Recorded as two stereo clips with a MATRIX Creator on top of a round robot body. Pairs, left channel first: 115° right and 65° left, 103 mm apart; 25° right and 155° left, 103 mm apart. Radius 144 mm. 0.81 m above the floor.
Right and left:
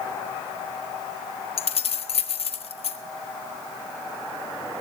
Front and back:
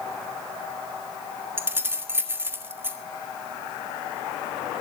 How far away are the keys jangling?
About 1.5 m.